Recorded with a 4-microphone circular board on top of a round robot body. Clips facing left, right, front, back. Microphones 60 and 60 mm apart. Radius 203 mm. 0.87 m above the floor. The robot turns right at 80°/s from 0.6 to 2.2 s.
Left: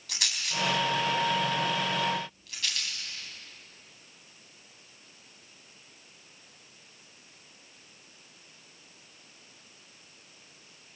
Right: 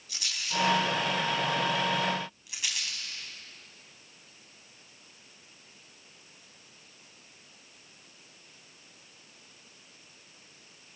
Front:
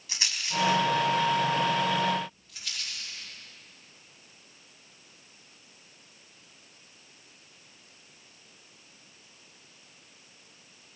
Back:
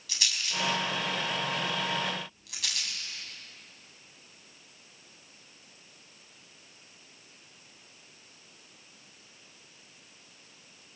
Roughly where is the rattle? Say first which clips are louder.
Even, front 2 dB; ahead left.